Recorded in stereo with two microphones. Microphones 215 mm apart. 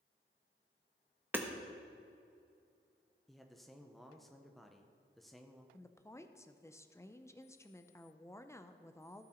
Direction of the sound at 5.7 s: 15° left (ahead or behind).